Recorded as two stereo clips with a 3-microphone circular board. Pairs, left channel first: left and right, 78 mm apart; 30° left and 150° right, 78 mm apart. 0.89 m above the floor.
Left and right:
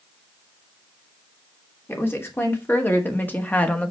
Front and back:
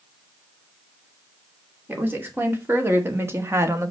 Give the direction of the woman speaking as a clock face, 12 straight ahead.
7 o'clock.